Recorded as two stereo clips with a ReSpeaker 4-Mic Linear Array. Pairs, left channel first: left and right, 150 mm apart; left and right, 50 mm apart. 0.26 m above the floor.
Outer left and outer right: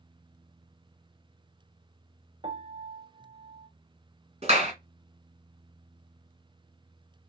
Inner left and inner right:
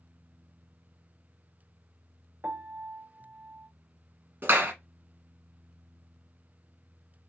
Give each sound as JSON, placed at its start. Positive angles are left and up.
{"t": 2.4, "sound": "a piano", "side_deg": -35, "distance_m": 0.6}
{"t": 4.4, "sound": "a clap", "side_deg": -40, "distance_m": 1.7}